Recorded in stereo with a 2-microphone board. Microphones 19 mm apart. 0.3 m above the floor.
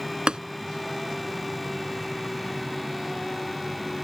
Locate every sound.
0.3 s tapping: 55° right (ahead or behind)